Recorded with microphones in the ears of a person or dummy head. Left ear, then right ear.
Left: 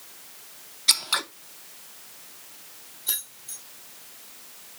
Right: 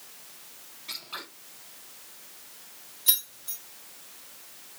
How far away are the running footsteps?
No running footsteps in this recording.